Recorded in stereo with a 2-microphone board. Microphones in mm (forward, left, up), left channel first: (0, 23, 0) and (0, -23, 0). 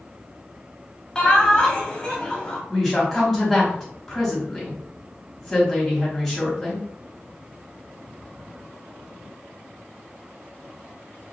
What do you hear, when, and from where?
1.1 s laughter: 20° left (ahead or behind), 1.0 m
2.7 s a woman speaking: 5° left (ahead or behind), 1.4 m